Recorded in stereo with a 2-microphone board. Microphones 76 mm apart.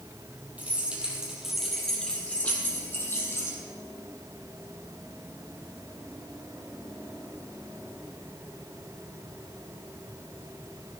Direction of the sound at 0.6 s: 20° right (ahead or behind).